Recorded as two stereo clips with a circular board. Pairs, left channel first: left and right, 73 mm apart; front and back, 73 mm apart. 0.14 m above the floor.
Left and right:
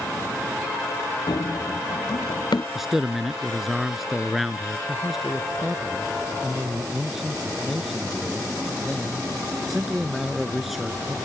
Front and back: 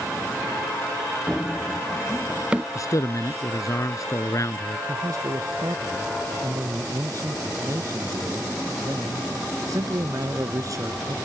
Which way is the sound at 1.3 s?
80° left.